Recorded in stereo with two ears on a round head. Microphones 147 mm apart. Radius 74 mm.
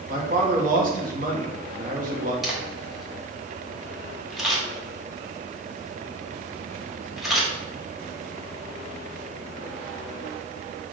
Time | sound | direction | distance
0.1 | a man speaking | 55° right (ahead or behind) | 1.3 m
2.4 | a camera shutter | centre (ahead or behind) | 1.4 m